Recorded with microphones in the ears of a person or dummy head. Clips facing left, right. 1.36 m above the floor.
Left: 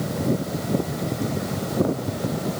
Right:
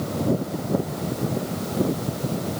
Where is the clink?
I don't hear a clink.